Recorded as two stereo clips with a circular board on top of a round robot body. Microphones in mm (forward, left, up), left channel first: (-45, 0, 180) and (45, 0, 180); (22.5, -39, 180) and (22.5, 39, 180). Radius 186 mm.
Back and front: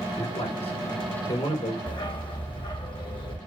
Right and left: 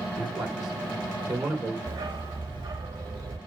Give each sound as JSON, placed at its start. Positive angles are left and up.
{"t": 0.2, "sound": "a man speaking", "azimuth_deg": -175, "distance_m": 5.0}
{"t": 1.9, "sound": "a dog barking", "azimuth_deg": 145, "distance_m": 1.5}